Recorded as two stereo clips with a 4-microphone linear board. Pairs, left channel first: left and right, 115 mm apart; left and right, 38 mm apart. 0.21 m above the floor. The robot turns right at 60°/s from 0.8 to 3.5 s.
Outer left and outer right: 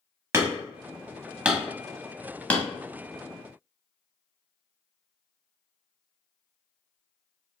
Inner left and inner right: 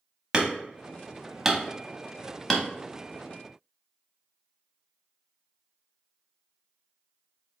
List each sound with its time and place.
0.3 s hammering: 20° right (ahead or behind), 0.8 m; by 2.7 s 15° left (ahead or behind), 0.8 m